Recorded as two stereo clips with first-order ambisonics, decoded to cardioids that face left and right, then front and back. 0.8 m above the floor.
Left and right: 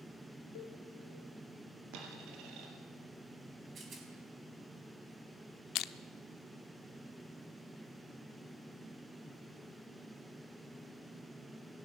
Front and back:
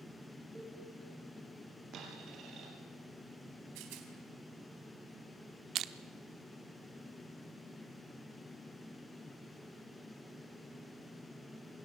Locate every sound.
0.6 s a cowbell: 95° left, 2 m
1.9 s a dropped coin: 125° right, 5 m
3.8 s a rattle: 155° right, 4 m
5.8 s crushing: 130° left, 0.7 m